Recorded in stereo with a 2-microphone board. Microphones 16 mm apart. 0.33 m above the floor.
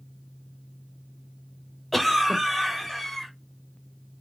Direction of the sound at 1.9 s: 20° left (ahead or behind).